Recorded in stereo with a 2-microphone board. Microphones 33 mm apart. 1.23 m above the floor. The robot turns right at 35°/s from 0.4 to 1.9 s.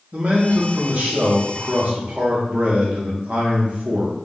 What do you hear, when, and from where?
0.1 s a man speaking: 105° right, 0.8 m; by 4.1 s 50° right, 0.8 m